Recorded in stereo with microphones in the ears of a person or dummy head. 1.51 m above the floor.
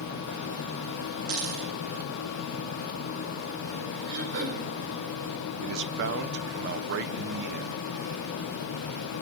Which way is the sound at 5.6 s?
60° right (ahead or behind).